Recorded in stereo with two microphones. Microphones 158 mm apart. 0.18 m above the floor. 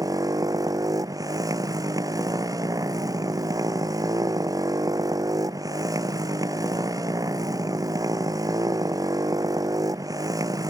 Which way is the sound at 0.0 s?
20° right (ahead or behind).